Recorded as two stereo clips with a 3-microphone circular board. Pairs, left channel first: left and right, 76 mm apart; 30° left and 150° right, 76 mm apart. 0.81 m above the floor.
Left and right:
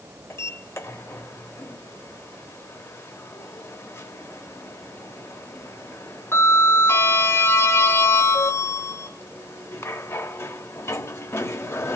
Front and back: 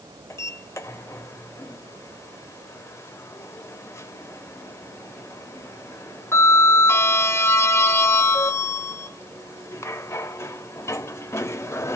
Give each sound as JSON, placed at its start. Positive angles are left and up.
{"t": 0.3, "sound": "a sliding door", "azimuth_deg": 60, "distance_m": 0.6}